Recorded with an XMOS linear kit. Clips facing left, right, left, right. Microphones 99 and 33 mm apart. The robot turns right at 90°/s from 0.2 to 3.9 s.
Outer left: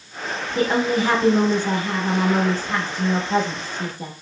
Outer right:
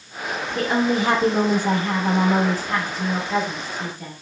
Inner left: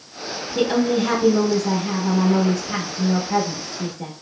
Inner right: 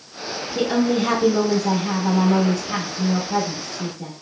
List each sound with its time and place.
0.6 s a woman speaking: 170° left, 0.9 m; by 4.1 s 115° left, 0.9 m